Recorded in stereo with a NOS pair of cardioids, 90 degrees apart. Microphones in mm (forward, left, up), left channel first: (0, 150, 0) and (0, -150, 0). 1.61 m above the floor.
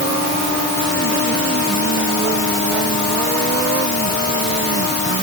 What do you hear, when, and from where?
Only background noise.